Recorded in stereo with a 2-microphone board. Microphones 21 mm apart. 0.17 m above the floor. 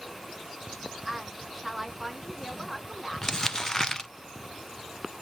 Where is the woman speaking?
5° right (ahead or behind), 1.5 m.